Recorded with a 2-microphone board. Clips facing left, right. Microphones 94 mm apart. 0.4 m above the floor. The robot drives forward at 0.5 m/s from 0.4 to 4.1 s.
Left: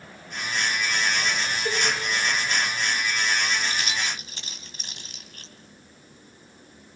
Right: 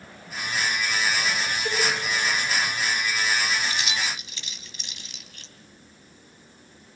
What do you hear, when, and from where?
1.6 s a cowbell: 5° left (ahead or behind), 7.5 m
3.7 s keys jangling: 45° left (ahead or behind), 2 m; by 5.5 s 40° left (ahead or behind), 2.5 m